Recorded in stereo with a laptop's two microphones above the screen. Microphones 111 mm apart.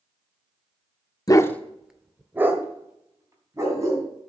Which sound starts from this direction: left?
A dog barking, at 1.3 s.